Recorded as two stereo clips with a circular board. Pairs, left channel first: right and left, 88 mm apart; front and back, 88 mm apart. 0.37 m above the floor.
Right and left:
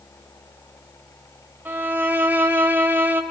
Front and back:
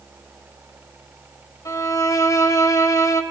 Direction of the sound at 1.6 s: 30° left.